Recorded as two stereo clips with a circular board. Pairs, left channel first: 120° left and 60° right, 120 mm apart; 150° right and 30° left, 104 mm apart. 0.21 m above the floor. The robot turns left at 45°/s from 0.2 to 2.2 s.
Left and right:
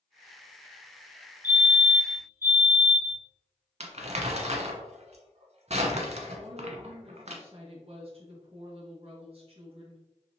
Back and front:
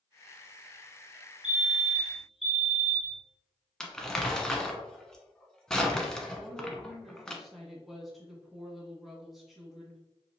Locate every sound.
1.4 s a fire alarm: 30° right, 2.0 m; by 3.2 s 65° right, 2.0 m
3.8 s crumpling: 65° right, 0.9 m
6.4 s a woman speaking: 60° right, 1.7 m